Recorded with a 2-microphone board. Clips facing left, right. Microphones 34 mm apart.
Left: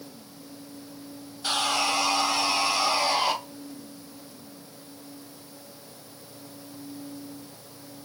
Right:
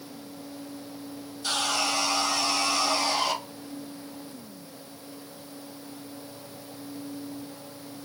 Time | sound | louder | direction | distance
1.4 | sawing | left 2 dB | 25° left (ahead or behind) | 1.1 m